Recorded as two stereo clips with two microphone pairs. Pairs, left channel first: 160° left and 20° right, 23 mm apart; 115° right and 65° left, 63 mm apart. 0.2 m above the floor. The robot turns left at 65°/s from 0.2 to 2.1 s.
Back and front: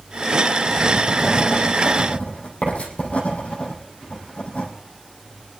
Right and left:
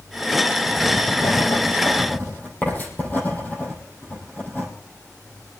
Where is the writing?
80° right, 4 m; by 4.7 s 175° right, 4 m.